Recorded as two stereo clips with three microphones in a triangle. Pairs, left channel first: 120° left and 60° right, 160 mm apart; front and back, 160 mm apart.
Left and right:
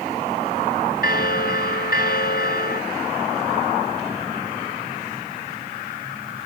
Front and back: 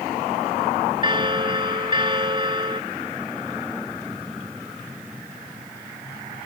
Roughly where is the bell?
Behind left.